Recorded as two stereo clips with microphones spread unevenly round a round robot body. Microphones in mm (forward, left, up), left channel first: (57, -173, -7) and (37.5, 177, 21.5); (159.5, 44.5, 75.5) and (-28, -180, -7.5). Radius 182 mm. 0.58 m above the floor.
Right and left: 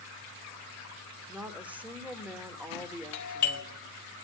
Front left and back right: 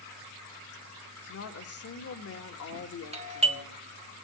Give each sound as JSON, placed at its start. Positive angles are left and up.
{"t": 1.3, "sound": "a woman speaking", "azimuth_deg": 5, "distance_m": 1.8}
{"t": 3.1, "sound": "a doorbell", "azimuth_deg": -85, "distance_m": 1.5}